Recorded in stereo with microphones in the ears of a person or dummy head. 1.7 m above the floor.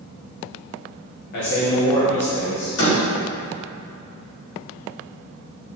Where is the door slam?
70° left (ahead or behind), 2.5 m.